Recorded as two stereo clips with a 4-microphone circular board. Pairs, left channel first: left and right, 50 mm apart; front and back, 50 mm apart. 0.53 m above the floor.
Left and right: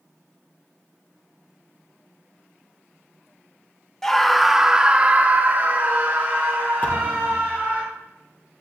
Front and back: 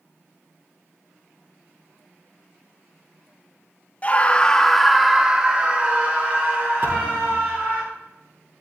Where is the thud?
150° left, 6 m.